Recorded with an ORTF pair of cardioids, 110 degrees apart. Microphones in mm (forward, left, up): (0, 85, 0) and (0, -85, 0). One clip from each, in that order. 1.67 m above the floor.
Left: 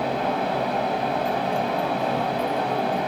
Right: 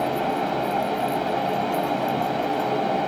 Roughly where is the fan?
Ahead.